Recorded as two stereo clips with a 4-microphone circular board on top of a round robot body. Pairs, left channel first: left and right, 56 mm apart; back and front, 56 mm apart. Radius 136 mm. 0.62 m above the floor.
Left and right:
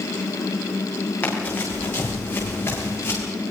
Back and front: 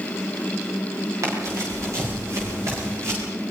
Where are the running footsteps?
30° left, 8 m; by 3.2 s 40° left, 7.5 m.